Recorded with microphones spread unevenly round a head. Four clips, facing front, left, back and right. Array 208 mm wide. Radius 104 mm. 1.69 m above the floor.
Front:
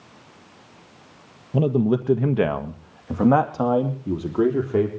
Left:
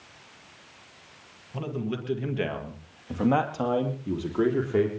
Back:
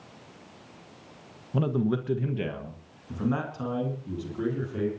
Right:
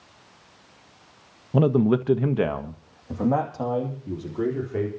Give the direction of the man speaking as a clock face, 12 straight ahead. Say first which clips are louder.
Right 12 dB, front 7 dB; 2 o'clock.